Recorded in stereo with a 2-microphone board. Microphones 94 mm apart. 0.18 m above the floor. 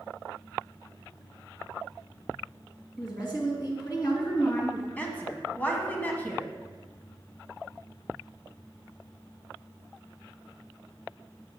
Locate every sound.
3.0 s a woman speaking: 50° left (ahead or behind), 2.5 m
5.0 s a woman speaking: 20° left (ahead or behind), 1.3 m